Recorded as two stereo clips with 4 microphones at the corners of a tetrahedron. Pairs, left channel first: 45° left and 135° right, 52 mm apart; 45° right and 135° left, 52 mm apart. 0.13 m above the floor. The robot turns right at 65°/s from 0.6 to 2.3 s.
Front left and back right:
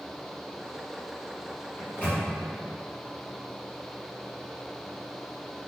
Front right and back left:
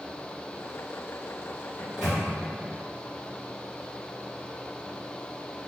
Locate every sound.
1.8 s a microwave: 40° left, 1.4 m; by 2.2 s 70° left, 1.4 m